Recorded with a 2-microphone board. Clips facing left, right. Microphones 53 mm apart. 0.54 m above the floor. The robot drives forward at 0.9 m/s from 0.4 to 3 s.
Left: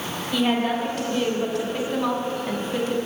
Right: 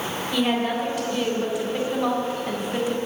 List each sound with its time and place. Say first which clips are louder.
0.3 s a woman speaking: left 1 dB; 5° right (ahead or behind), 3 m; by 3.0 s 10° right (ahead or behind), 1.1 m